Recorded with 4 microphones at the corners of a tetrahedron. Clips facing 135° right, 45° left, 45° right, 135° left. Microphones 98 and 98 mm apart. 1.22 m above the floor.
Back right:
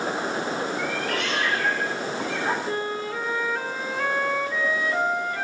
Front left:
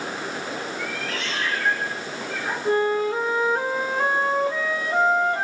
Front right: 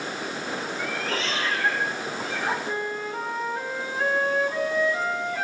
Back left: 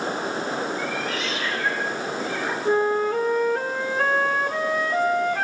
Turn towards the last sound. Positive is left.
turn(degrees=105)